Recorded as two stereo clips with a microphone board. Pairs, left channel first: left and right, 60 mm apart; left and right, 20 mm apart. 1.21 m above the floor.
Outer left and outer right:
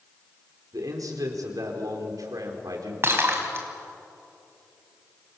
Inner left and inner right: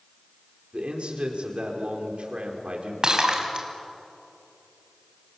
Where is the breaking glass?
40° right (ahead or behind), 4 m.